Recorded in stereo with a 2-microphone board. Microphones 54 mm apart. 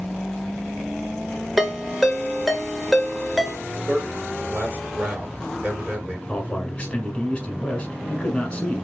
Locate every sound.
1.6 s a ringtone: 5° right (ahead or behind), 0.7 m
3.9 s a man speaking: 35° right (ahead or behind), 2 m
6.3 s a man speaking: 25° left (ahead or behind), 1.1 m